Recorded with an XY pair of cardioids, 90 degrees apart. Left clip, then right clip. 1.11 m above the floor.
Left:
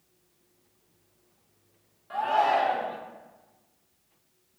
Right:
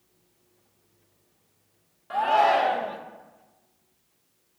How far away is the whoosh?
I don't hear a whoosh.